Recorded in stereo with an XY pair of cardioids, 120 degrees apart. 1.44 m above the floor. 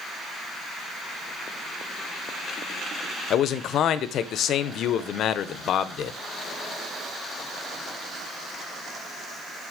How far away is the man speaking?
About 0.9 m.